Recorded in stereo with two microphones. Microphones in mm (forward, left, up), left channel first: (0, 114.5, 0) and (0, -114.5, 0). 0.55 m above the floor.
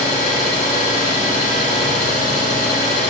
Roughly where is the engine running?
Left.